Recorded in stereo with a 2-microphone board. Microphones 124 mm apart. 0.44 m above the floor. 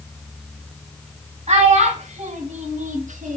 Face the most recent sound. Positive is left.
turn(degrees=-75)  # may be behind; listen again after turning